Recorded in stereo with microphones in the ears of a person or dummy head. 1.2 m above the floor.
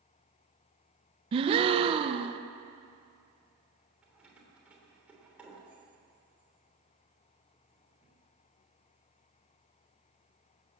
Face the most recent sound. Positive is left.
turn(degrees=-5)  # may be behind; listen again after turning